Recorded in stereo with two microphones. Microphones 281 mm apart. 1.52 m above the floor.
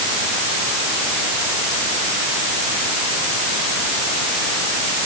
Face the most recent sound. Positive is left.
No sound to turn to.